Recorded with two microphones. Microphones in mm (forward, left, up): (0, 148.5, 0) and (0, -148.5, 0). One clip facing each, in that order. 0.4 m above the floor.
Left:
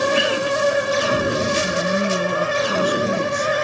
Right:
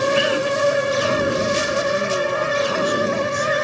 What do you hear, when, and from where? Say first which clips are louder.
1.6 s a woman speaking: even; 80° left, 5 m